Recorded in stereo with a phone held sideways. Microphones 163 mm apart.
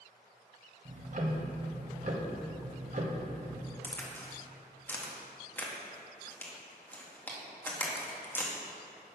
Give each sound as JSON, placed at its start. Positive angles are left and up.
{"t": 0.8, "sound": "ticking", "side_deg": -55, "distance_m": 1.1}
{"t": 3.8, "sound": "a crack", "side_deg": 10, "distance_m": 1.6}